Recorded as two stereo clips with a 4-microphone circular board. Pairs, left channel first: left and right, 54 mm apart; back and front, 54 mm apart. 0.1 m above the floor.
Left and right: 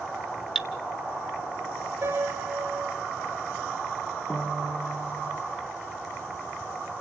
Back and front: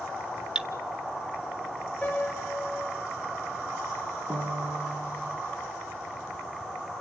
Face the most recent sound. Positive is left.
turn(degrees=20)